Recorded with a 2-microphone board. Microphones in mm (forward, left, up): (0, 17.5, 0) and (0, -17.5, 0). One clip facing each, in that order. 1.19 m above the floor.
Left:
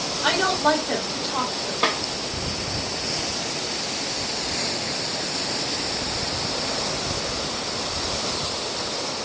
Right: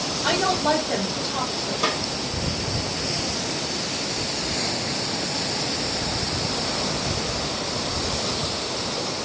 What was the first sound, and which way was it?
A woman speaking, 65° left (ahead or behind).